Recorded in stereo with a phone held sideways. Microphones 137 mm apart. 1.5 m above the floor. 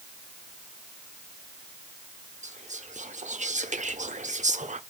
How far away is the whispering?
About 0.7 m.